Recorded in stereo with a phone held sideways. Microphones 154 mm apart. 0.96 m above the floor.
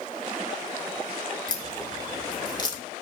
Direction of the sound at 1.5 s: 25° left (ahead or behind).